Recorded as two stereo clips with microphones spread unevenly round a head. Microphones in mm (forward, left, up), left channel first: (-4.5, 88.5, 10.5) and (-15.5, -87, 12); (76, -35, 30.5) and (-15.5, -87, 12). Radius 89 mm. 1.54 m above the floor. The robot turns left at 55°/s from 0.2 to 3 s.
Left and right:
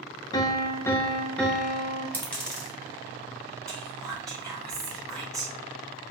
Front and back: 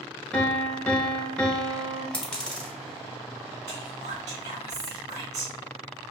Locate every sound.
0.3 s a piano: 70° left, 0.7 m; by 2.0 s 25° right, 0.7 m
2.1 s a dropped coin: 25° left, 0.9 m; by 2.7 s 5° right, 0.9 m
3.7 s whispering: 175° left, 1.9 m